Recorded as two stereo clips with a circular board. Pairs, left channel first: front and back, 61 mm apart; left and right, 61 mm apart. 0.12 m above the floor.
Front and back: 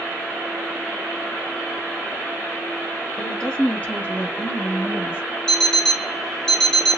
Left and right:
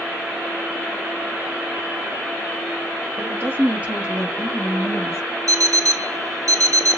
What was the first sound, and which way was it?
A woman speaking, 75° right.